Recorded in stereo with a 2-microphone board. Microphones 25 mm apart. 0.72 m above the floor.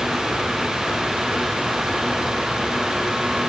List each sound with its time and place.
Only background noise.